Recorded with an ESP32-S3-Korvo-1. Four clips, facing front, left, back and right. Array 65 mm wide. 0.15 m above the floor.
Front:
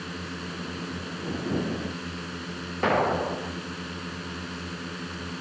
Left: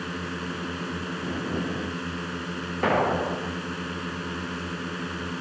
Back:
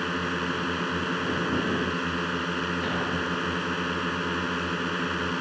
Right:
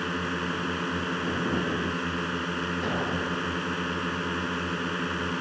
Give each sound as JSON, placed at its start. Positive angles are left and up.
{"t": 0.0, "sound": "a drone", "azimuth_deg": -155}
{"t": 2.8, "sound": "an explosion", "azimuth_deg": 50}